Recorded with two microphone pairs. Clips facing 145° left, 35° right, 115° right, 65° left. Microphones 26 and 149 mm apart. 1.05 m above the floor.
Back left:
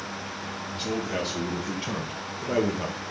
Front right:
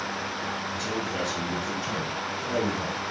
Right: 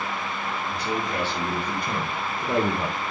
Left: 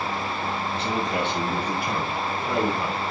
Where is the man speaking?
120° left, 1.9 m; by 3.0 s 155° right, 1.2 m.